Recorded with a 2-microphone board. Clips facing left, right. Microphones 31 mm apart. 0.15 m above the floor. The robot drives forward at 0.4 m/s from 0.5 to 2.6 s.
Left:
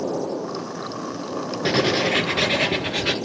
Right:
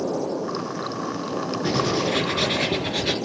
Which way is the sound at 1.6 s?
50° left (ahead or behind).